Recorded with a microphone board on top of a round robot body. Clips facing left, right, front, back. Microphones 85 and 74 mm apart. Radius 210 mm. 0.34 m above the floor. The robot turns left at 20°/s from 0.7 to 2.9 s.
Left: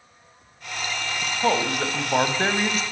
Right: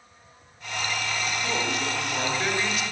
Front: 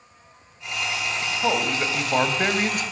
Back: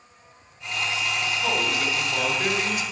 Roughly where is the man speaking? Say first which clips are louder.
Left 9 dB, front 4 dB; left.